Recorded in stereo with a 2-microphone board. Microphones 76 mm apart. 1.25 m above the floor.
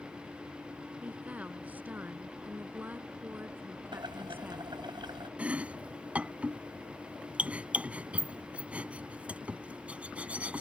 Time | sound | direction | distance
1.0 | a woman speaking | 20° right (ahead or behind) | ?
3.9 | boiling | 75° right (ahead or behind) | ?
5.4 | chopping | 15° right (ahead or behind) | ?